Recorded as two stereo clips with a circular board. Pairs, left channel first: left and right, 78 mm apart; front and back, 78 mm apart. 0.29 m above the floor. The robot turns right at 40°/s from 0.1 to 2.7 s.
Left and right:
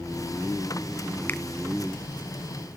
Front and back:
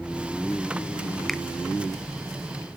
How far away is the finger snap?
About 0.7 m.